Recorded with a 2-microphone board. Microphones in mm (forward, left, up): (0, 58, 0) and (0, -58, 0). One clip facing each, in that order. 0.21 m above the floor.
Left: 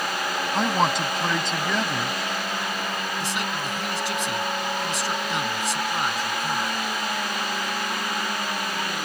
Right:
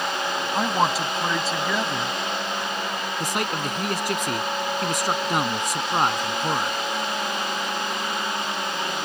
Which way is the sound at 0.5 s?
5° right (ahead or behind).